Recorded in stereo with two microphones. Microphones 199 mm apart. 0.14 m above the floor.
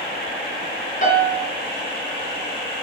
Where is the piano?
40° left (ahead or behind), 2 m.